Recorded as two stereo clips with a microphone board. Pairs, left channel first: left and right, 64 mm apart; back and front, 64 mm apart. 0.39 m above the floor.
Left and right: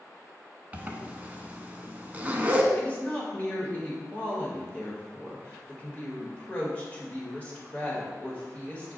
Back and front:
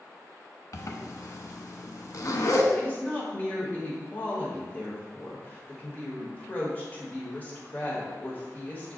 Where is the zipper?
155° right, 0.5 m.